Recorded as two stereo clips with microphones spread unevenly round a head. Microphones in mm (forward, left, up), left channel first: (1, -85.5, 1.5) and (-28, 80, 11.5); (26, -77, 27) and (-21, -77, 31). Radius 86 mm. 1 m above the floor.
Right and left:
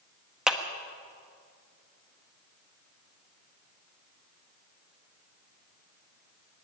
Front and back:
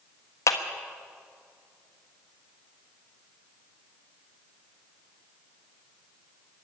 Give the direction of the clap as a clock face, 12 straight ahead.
12 o'clock.